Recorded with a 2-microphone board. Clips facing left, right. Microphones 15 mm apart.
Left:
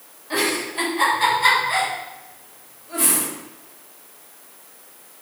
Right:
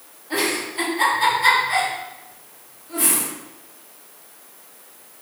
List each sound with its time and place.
0.3 s a giggle: 25° left (ahead or behind), 3 m